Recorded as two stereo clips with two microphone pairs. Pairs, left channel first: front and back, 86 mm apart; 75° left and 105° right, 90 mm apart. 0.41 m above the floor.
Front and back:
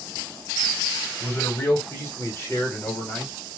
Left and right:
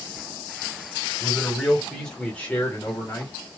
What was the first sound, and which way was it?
A man speaking, 30° right.